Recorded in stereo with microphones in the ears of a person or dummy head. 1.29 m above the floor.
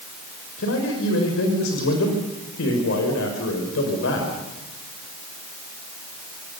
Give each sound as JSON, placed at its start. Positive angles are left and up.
{"t": 0.6, "sound": "a man speaking", "side_deg": 65, "distance_m": 5.5}